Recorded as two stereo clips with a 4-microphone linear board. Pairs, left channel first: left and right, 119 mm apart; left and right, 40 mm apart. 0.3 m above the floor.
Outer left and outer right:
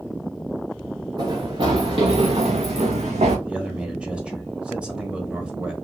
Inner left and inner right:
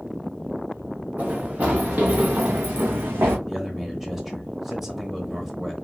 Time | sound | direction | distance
1.2 | running footsteps | 40° right (ahead or behind) | 1.5 m
3.5 | a man speaking | 10° right (ahead or behind) | 0.9 m